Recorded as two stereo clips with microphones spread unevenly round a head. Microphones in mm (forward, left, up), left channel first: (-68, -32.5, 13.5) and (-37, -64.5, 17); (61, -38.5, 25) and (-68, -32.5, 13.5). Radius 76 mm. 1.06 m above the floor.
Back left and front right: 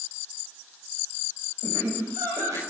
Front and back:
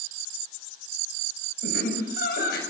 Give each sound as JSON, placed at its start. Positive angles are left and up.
{"t": 1.6, "sound": "laughter", "azimuth_deg": 0, "distance_m": 6.5}